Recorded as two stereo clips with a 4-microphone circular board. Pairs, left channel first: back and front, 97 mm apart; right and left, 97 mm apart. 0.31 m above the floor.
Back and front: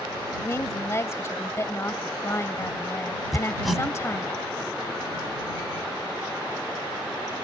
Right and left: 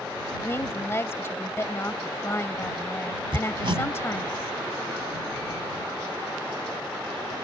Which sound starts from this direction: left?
Hammering, at 3.3 s.